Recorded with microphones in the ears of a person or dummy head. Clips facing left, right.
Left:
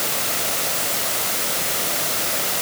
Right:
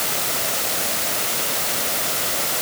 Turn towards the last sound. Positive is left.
No sound to turn to.